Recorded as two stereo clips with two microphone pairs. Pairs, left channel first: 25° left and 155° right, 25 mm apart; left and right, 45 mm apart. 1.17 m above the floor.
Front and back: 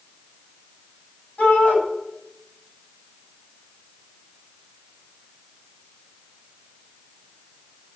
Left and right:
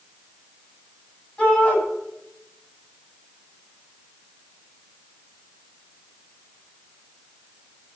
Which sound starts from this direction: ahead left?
A shout, at 1.4 s.